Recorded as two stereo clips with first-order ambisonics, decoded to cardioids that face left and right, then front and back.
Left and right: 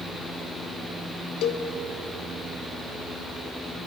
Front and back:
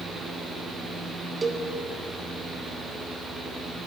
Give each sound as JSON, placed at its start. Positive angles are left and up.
{"t": 1.4, "sound": "a cowbell", "azimuth_deg": 110, "distance_m": 0.7}